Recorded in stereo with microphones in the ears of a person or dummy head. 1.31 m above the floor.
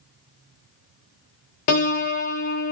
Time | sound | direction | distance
1.7 | a piano | 50° left (ahead or behind) | 0.6 m